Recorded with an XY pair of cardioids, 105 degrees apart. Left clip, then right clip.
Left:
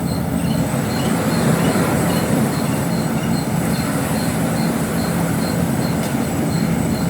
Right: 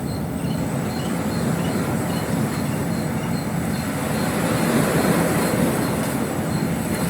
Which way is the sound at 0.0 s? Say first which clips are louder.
Left 5 dB; 40° left.